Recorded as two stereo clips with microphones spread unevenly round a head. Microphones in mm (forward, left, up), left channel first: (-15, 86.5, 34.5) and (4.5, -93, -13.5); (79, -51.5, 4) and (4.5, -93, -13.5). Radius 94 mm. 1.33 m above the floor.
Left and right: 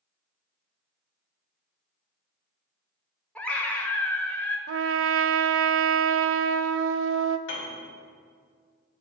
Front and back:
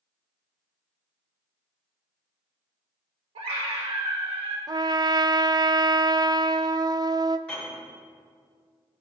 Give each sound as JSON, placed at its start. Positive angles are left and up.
{"t": 3.4, "sound": "a scream", "azimuth_deg": -175, "distance_m": 1.5}
{"t": 4.7, "sound": "a trumpet", "azimuth_deg": -105, "distance_m": 0.5}
{"t": 7.5, "sound": "a piano", "azimuth_deg": 115, "distance_m": 3.0}